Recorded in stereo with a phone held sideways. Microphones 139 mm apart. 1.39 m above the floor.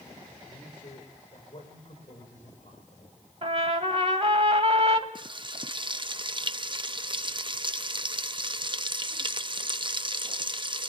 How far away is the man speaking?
About 5 m.